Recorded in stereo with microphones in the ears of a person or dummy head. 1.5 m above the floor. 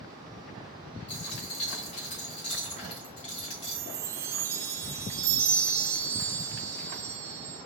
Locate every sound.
1.1 s a dropped coin: 40° left (ahead or behind), 2.5 m
3.6 s a chime: 15° right (ahead or behind), 0.7 m